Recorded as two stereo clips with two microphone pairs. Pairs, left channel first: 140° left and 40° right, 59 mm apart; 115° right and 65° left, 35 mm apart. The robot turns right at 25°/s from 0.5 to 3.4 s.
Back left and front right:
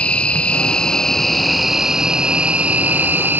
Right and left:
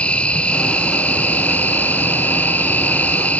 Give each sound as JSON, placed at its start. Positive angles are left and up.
{"t": 0.0, "sound": "an insect", "azimuth_deg": -155}